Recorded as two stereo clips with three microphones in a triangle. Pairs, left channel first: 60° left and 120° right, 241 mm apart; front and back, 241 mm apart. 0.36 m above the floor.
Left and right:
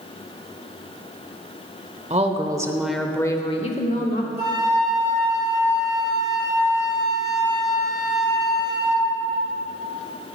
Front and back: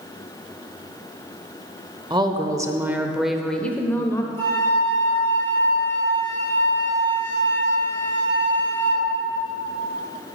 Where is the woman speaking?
135° right, 0.9 m; by 4.3 s 70° left, 1.0 m.